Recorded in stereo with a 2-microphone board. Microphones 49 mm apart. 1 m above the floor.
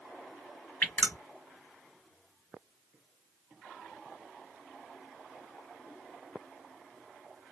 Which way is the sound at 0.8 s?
35° left (ahead or behind).